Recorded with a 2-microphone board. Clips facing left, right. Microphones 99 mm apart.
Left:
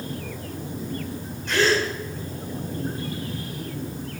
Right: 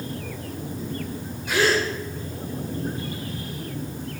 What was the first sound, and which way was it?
A gasp, 5° right (ahead or behind).